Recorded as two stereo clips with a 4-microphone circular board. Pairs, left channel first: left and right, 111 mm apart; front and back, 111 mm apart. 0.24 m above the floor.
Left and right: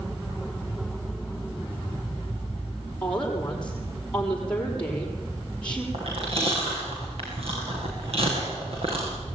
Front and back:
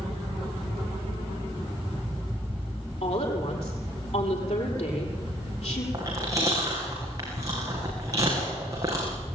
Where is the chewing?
120° right, 8.5 m.